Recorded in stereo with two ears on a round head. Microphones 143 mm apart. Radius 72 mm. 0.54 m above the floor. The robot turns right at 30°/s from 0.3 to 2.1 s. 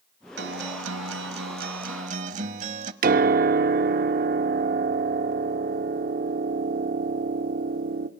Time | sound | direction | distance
0.4 | a guitar | 100° right | 0.9 m
3.0 | a piano | 60° right (ahead or behind) | 0.7 m